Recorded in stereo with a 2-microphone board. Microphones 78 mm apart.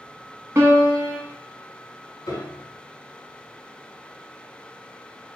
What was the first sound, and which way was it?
A piano, 35° right (ahead or behind).